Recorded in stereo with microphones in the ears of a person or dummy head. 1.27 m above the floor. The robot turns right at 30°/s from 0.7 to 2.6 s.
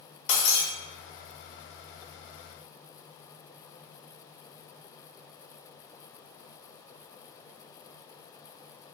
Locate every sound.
0.3 s breaking glass: 45° left (ahead or behind), 0.6 m